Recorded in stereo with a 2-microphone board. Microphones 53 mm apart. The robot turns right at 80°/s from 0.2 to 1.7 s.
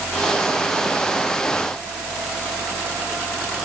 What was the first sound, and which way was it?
Only background noise.